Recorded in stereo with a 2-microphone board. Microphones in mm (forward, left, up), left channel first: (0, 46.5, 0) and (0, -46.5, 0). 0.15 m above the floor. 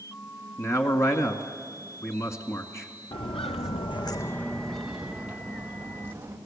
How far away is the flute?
No flute in this recording.